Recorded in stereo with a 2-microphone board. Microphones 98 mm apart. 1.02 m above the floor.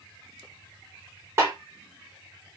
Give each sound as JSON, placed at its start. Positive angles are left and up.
{"t": 1.4, "sound": "a snare drum", "side_deg": -30, "distance_m": 1.1}